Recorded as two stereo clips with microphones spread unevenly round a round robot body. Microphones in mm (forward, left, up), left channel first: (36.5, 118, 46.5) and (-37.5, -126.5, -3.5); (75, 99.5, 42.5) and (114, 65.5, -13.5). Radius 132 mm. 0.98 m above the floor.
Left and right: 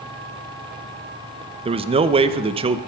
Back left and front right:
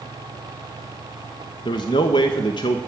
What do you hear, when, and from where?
1.6 s a man speaking: 160° right, 0.7 m